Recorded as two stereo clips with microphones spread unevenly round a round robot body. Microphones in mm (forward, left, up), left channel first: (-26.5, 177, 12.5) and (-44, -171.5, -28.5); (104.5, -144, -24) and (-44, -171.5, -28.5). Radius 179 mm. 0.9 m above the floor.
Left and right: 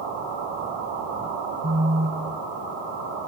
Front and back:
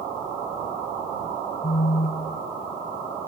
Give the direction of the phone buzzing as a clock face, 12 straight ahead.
1 o'clock.